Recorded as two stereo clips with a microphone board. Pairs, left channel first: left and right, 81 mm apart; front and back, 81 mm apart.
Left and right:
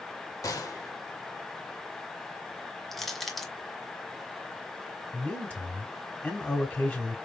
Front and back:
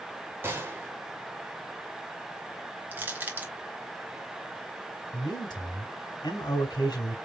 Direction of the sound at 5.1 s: 20° left.